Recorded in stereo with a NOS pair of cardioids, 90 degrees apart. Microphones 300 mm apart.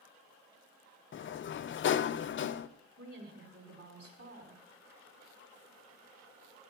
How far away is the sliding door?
About 0.5 m.